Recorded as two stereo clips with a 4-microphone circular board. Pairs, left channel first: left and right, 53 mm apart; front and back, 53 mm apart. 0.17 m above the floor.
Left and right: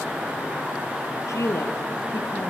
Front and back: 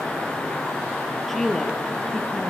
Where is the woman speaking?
85° left, 4 m; by 2.5 s 65° left, 3.5 m.